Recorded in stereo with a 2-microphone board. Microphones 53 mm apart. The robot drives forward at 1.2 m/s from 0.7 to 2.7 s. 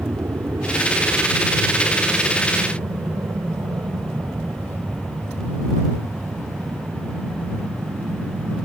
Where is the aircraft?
65° right (ahead or behind); by 8.7 s 75° right (ahead or behind).